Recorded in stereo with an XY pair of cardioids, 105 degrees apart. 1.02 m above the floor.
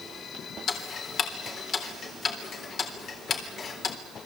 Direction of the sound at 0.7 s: 55° left.